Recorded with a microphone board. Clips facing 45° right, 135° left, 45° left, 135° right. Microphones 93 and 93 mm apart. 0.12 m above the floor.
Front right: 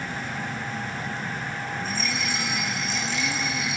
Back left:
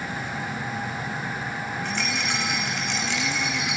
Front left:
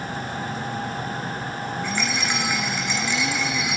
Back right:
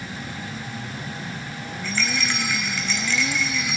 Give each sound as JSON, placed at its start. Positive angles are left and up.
{"t": 1.8, "sound": "a rattle", "azimuth_deg": 120, "distance_m": 3.0}